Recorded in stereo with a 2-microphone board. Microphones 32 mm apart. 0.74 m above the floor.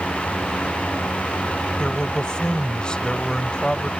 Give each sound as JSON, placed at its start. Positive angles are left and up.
{"t": 1.8, "sound": "a man speaking", "side_deg": 25}